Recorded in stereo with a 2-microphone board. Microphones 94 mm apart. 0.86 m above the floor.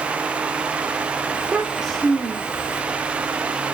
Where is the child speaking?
15° right (ahead or behind), 1.6 m; by 2.8 s 40° left (ahead or behind), 1.5 m.